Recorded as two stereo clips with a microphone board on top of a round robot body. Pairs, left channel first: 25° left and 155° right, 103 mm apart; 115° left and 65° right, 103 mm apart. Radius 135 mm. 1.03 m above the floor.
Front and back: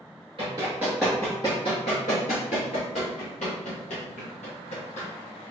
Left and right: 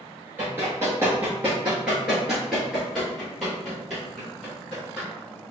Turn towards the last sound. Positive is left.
turn(degrees=25)